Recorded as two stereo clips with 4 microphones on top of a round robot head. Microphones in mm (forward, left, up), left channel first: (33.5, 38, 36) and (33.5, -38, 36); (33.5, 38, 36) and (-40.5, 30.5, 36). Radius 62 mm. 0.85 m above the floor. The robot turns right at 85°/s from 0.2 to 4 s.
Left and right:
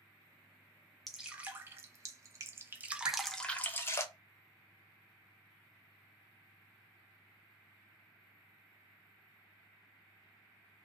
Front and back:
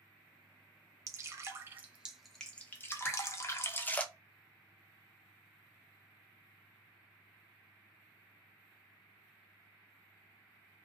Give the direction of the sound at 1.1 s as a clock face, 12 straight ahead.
6 o'clock.